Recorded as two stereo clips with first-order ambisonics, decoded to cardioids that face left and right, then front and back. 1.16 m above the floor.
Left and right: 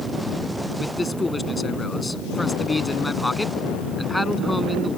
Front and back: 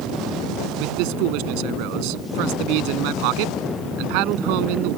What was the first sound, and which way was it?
A man speaking, 165° left.